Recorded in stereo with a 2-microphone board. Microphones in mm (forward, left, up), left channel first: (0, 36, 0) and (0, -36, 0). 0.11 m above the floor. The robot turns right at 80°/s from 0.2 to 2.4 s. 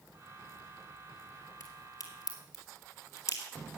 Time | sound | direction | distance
1.6 | a crack | 50° left (ahead or behind) | 3 m